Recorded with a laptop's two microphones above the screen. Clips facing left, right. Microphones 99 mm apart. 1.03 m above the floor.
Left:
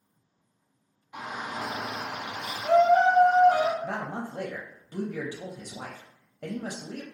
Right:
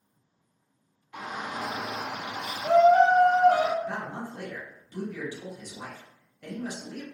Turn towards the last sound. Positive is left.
turn(degrees=65)  # may be behind; listen again after turning